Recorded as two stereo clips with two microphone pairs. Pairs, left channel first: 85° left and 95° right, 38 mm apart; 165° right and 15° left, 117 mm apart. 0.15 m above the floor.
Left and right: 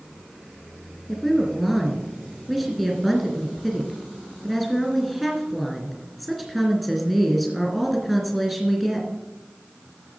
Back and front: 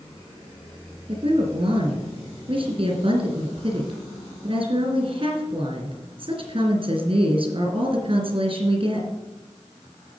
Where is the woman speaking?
10° right, 3 m.